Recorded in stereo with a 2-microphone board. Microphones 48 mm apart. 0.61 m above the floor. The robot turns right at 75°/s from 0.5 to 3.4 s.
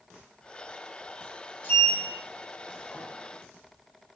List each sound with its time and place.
1.6 s a sliding door: 45° left (ahead or behind), 1.0 m; by 3.0 s 30° left (ahead or behind), 1.0 m